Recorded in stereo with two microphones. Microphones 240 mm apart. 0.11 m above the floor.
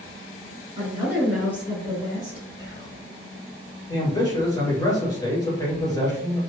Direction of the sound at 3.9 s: 15° left (ahead or behind).